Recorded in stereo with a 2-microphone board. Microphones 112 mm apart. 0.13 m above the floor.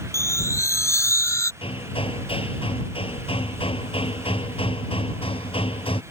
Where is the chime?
25° left (ahead or behind).